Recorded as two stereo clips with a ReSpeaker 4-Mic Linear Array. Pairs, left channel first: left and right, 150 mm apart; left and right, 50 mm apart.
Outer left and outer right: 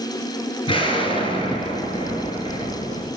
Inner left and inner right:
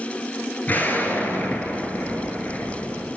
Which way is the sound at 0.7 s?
35° left (ahead or behind).